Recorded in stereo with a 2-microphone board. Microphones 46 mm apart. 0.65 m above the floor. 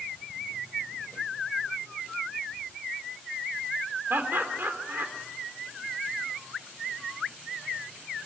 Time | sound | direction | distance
4.1 | laughter | 60° right (ahead or behind) | 2.5 m